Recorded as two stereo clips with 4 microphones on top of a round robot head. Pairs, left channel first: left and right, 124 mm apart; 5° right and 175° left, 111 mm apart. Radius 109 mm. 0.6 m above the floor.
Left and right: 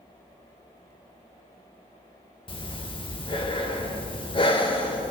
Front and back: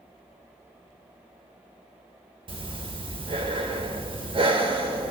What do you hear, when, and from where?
2.5 s breathing: 140° left, 1.6 m